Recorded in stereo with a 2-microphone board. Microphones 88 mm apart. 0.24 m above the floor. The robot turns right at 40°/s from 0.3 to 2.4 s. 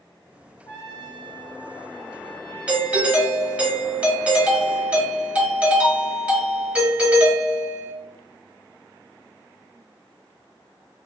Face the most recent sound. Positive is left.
turn(degrees=-15)  # may be behind; listen again after turning